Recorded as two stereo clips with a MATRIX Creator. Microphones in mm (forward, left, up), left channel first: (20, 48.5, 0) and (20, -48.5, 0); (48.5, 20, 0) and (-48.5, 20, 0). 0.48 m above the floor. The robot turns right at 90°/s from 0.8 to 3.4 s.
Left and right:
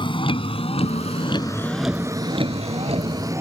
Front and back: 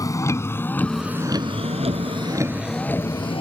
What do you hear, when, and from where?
0.0 s a vehicle: 55° left; by 3.4 s 25° right